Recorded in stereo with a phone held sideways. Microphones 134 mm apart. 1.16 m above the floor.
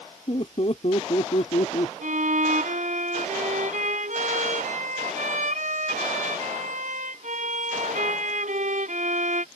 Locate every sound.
0.3 s laughter: 50° left (ahead or behind); by 1.9 s 60° left (ahead or behind)
2.0 s a violin: 75° right (ahead or behind)